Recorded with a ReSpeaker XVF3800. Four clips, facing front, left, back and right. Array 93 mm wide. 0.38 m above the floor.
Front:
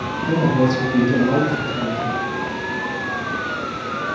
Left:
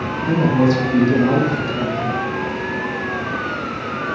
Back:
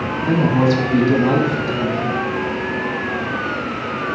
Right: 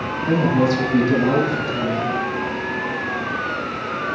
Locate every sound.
0.3 s a woman speaking: straight behind, 2 m